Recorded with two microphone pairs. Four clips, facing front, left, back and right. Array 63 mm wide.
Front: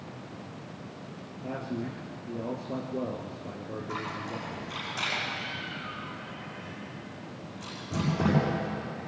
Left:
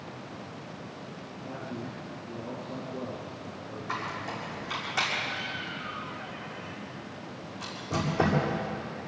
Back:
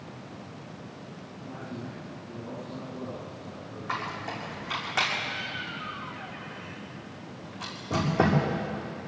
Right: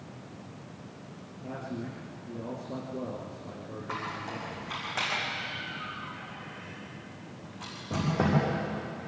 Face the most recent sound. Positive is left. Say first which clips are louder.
# left 2 dB, back 4 dB
turn(degrees=-175)